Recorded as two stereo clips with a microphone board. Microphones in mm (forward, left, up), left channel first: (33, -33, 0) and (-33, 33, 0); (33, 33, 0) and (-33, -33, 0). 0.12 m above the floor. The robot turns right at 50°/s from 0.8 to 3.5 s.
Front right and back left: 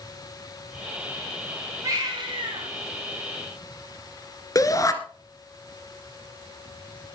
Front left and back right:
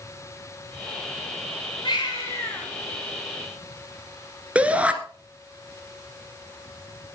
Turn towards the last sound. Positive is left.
turn(degrees=-65)